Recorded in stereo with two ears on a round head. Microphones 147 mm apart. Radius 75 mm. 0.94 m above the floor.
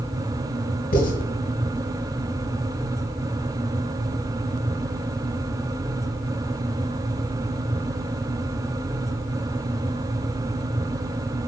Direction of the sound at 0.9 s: 60° left (ahead or behind).